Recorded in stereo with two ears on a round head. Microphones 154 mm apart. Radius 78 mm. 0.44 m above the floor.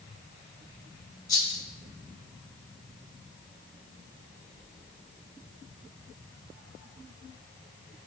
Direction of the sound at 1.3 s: 20° left (ahead or behind).